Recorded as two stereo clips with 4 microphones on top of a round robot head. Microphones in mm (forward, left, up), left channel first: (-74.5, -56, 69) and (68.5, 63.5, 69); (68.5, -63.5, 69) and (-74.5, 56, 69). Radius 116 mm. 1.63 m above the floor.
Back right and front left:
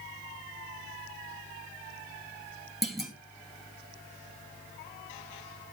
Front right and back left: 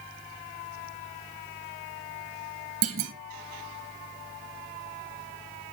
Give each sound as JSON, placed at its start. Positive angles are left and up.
{"t": 2.8, "sound": "a clunk", "azimuth_deg": 130, "distance_m": 1.2}